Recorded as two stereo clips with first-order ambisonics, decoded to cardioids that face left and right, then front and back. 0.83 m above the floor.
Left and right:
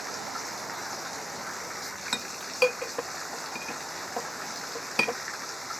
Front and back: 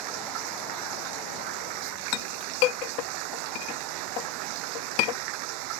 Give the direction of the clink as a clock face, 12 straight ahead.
12 o'clock.